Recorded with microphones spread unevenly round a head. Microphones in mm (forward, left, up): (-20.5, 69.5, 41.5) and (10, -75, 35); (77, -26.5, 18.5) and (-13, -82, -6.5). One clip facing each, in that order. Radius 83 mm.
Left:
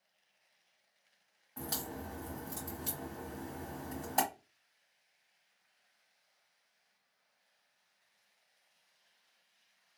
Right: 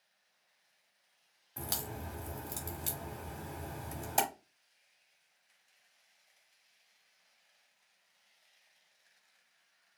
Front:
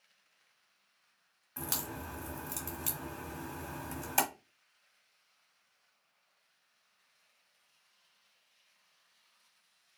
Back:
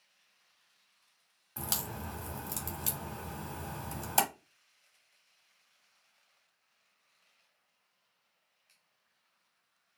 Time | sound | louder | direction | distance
1.6 | a crack | left 1 dB, back 1 dB | 85° right | 1.2 m